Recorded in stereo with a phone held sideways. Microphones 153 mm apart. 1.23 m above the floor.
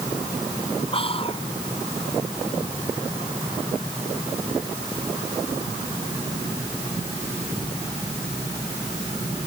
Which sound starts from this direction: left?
Whispering, at 0.9 s.